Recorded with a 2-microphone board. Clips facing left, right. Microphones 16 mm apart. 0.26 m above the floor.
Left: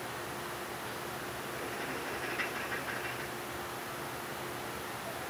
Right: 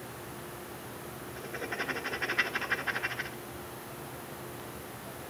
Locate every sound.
1.4 s writing: 45° right (ahead or behind), 0.8 m